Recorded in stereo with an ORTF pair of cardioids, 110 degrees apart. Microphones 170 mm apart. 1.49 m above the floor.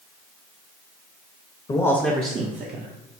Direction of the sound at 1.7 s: 25° left.